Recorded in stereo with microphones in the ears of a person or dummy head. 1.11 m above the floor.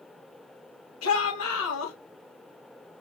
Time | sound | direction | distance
1.0 | a shout | 75° left (ahead or behind) | 2 m